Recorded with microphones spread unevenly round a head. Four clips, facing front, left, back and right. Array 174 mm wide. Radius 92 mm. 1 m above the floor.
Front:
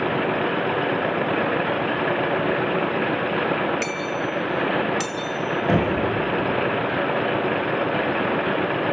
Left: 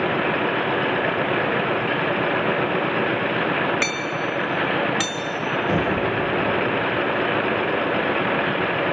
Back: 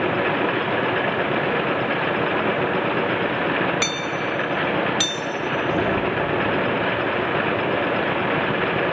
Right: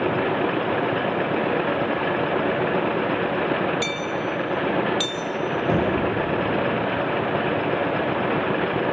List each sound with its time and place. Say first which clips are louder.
3.8 s hammering: left 1 dB, even; 140° left, 4.5 m
5.7 s knocking: right 1 dB, front 1 dB; 30° right, 7.5 m